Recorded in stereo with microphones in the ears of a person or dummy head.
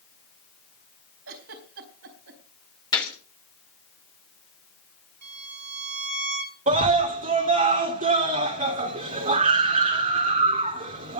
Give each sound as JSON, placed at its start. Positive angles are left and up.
{"t": 1.3, "sound": "a giggle", "side_deg": -75, "distance_m": 4.0}
{"t": 2.9, "sound": "a gunshot", "side_deg": 20, "distance_m": 4.0}
{"t": 5.2, "sound": "a violin", "side_deg": -55, "distance_m": 2.0}
{"t": 6.7, "sound": "a scream", "side_deg": -40, "distance_m": 3.0}